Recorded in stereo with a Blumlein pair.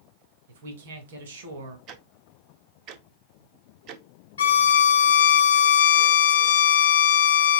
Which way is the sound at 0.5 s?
60° right.